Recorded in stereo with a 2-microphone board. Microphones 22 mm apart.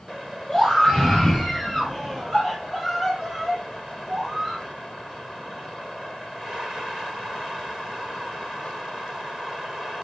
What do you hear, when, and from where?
0.5 s a scream: 15° left (ahead or behind), 4 m; by 4.6 s 15° right (ahead or behind), 4.5 m